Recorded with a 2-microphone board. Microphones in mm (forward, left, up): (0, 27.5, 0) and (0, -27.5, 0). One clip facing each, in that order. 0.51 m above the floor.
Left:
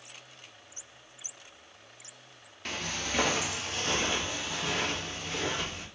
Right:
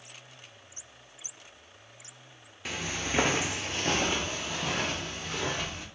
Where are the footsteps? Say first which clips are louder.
Right 1 dB; 5° right (ahead or behind), 0.5 m; by 5.8 s 35° right (ahead or behind), 1.6 m.